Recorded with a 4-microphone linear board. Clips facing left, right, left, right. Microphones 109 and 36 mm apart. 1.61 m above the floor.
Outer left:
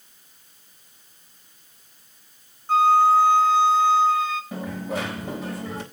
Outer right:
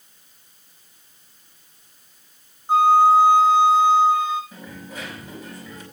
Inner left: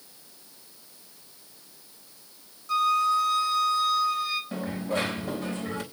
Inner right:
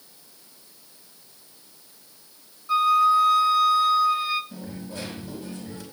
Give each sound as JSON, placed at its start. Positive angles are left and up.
{"t": 2.7, "sound": "a flute", "side_deg": -20, "distance_m": 2.0}
{"t": 4.5, "sound": "a dropped coin", "side_deg": 75, "distance_m": 4.0}